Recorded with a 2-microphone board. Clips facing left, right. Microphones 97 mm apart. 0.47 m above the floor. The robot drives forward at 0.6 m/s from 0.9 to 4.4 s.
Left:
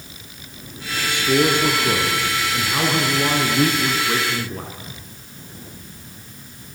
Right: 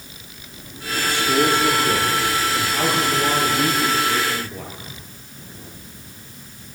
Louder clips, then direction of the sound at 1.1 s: Left 1 dB; 60° left (ahead or behind).